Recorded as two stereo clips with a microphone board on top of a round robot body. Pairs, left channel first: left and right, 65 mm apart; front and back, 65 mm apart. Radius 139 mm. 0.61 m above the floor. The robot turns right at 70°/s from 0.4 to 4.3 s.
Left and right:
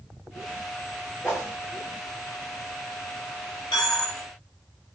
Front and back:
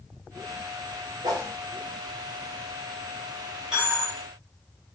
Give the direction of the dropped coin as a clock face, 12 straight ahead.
9 o'clock.